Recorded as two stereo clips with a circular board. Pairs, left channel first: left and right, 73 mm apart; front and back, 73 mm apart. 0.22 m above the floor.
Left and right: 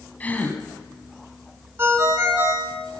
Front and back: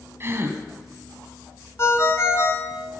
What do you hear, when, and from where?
0.2 s a gasp: 145° left, 1.5 m
1.8 s a ringtone: 45° right, 1.6 m